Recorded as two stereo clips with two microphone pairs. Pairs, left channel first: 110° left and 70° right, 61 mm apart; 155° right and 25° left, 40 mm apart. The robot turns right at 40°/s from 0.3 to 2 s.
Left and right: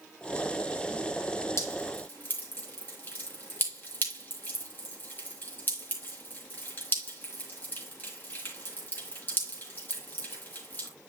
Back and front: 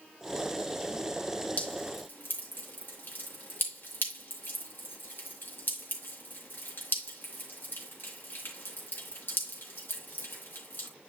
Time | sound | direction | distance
1.6 | dripping | 150° left | 3 m